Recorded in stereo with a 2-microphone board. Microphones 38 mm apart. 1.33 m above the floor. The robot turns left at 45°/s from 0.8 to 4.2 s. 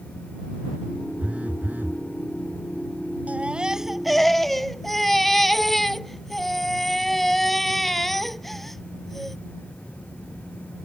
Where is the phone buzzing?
35° right; by 2.0 s 70° right.